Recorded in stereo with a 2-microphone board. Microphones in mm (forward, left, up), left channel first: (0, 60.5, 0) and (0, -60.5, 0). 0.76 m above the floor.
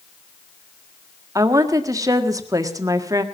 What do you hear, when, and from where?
1.4 s a woman speaking: 30° right (ahead or behind), 1.6 m